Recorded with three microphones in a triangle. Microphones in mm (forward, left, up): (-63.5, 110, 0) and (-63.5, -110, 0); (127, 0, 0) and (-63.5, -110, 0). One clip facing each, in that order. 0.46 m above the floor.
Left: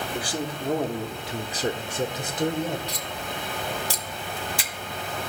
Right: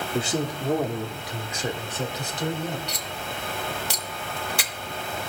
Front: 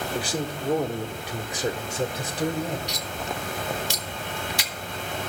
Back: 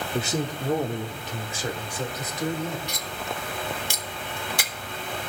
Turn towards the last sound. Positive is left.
turn(degrees=-110)